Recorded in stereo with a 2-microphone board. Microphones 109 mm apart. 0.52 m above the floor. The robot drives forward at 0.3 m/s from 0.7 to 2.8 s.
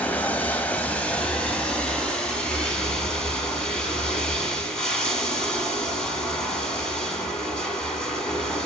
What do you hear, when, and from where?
0.0 s running water: 15° left (ahead or behind), 0.9 m; by 8.7 s 10° left (ahead or behind), 1.5 m